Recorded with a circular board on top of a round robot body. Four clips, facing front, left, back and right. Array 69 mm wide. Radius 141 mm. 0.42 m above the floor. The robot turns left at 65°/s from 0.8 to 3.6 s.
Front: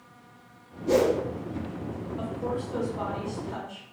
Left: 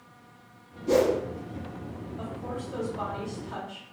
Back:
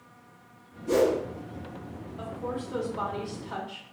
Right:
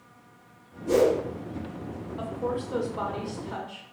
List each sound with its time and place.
0.9 s a whoosh: 55° left, 1.1 m; by 1.2 s 35° left, 1.1 m
2.2 s a woman speaking: 65° right, 1.1 m; by 3.8 s 155° right, 1.1 m